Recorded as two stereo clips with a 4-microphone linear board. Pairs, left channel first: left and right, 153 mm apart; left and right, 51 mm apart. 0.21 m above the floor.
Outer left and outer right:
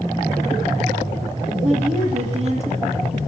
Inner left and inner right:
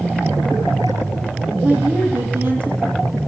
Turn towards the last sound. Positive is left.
turn(degrees=-45)  # may be behind; listen again after turning